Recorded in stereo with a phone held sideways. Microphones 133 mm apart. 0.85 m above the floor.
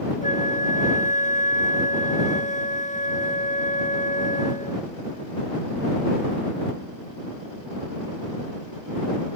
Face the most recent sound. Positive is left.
turn(degrees=75)  # may be behind; listen again after turning